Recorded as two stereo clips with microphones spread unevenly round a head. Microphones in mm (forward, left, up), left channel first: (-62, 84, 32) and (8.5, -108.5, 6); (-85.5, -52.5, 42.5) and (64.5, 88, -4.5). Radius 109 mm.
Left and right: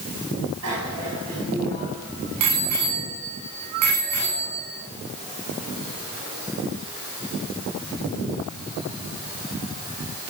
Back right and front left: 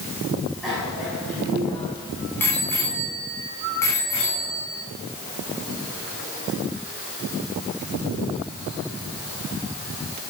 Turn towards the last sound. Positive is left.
turn(degrees=-65)